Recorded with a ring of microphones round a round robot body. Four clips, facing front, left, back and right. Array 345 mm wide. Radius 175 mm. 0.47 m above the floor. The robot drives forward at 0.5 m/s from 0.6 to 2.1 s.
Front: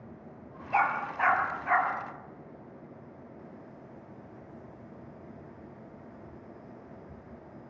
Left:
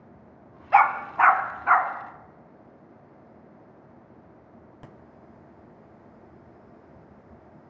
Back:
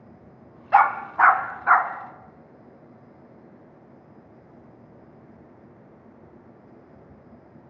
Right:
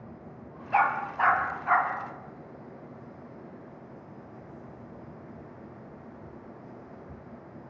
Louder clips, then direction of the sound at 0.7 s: Left 6 dB, back 10 dB; 145° left.